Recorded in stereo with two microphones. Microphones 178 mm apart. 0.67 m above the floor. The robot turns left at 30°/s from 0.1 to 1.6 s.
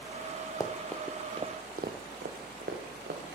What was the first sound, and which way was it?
Running footsteps, 20° left (ahead or behind).